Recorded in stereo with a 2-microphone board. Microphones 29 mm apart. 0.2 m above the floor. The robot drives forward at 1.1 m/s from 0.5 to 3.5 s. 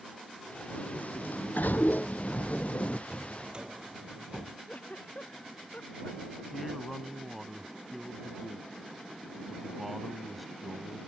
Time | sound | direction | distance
0.7 | a sliding door | 55° left (ahead or behind) | ?
3.1 | a drawer | 35° right (ahead or behind) | ?
4.7 | a giggle | 60° left (ahead or behind) | ?
6.5 | a man speaking | centre (ahead or behind) | ?